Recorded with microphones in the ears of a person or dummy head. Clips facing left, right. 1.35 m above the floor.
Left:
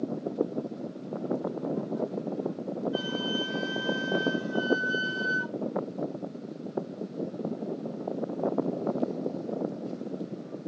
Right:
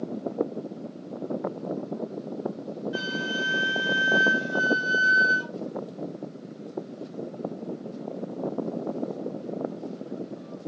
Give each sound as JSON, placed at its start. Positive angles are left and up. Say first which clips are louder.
{"t": 2.9, "sound": "a flute", "louder": "left 1 dB", "side_deg": -30, "distance_m": 2.0}